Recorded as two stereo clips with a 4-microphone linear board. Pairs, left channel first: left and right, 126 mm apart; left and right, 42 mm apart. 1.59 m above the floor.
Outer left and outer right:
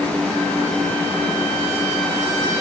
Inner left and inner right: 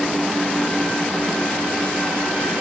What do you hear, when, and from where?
Only background noise.